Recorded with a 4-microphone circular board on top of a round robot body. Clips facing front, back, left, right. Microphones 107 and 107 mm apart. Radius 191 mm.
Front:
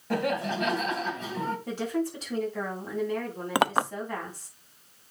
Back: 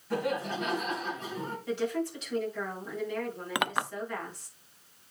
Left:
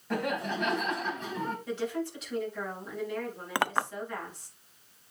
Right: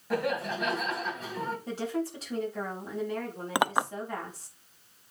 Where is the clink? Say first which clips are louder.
Front 7 dB, right 3 dB; 25° right, 0.6 m.